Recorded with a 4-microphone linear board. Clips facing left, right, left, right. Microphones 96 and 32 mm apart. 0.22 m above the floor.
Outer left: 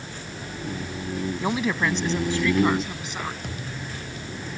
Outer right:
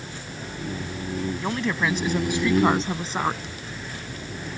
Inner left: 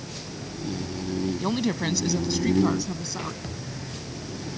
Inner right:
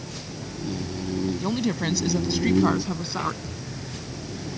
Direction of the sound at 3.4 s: 60° left (ahead or behind).